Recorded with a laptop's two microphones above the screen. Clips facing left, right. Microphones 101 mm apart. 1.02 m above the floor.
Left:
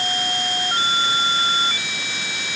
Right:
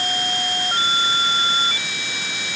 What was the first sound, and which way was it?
Only background noise.